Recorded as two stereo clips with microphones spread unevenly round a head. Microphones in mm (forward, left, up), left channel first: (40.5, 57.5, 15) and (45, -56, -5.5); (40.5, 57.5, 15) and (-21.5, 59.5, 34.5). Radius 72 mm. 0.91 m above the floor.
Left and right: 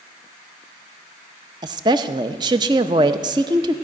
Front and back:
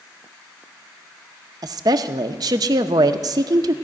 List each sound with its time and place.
1.6 s a woman speaking: 135° right, 0.6 m